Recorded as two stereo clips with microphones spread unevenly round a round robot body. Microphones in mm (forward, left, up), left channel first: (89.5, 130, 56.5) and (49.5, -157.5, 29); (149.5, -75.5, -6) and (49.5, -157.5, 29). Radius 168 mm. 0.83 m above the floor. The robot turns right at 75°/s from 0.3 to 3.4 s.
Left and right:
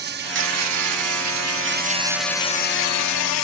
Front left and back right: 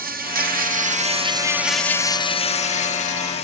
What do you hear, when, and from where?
0.0 s an insect: 155° right; by 3.4 s 80° left